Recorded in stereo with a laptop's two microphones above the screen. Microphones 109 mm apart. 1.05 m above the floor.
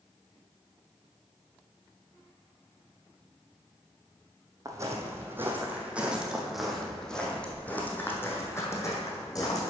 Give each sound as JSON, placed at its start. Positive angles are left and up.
{"t": 4.7, "sound": "footsteps", "side_deg": -30, "distance_m": 2.0}